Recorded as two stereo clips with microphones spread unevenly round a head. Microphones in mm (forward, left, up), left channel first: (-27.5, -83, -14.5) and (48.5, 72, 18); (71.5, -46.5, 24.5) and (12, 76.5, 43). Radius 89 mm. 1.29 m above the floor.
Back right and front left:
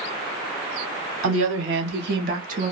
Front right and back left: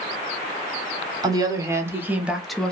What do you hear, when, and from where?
1.2 s a woman speaking: 50° left, 1.3 m; by 2.7 s 10° left, 0.7 m